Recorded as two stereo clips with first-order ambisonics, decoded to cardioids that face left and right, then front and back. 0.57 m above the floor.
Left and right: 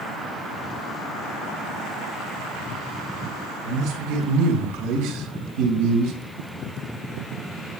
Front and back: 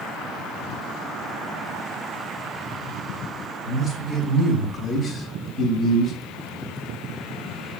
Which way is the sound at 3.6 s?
95° right.